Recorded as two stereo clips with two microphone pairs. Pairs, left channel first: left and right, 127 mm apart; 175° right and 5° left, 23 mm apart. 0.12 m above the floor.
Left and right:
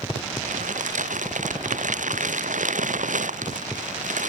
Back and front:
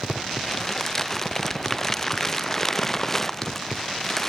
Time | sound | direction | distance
0.4 | crumpling | 95° right | ?